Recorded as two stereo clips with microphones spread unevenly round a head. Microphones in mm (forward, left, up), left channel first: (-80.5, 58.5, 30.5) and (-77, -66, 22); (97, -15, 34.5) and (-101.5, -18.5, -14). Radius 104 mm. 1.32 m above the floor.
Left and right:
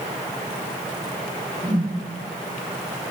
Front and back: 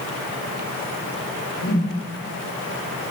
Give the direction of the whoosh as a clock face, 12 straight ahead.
1 o'clock.